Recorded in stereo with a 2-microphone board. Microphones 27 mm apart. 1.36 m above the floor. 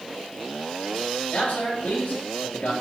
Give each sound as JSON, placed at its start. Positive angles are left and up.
{"t": 1.3, "sound": "a man speaking", "side_deg": 70, "distance_m": 9.0}